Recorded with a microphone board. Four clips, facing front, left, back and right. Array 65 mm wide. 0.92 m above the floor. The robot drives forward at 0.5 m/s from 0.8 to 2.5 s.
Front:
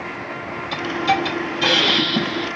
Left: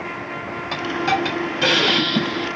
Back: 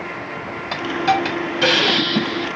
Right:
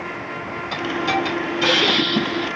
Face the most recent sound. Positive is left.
turn(degrees=155)